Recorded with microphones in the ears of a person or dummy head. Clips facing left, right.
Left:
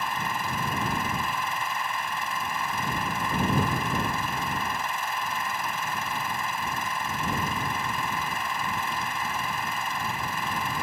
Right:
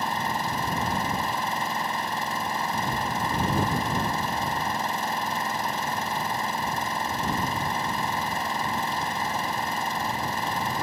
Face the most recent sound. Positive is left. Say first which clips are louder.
# right 3 dB
turn(degrees=-35)  # may be behind; listen again after turning